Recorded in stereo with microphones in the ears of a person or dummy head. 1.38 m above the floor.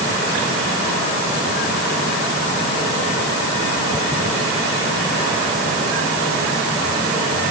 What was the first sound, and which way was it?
Only background noise.